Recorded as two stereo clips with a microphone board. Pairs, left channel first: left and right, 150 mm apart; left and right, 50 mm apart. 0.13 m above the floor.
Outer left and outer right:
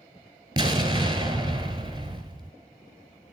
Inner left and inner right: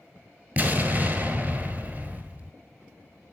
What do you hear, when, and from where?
0.6 s an explosion: 30° right (ahead or behind), 1.1 m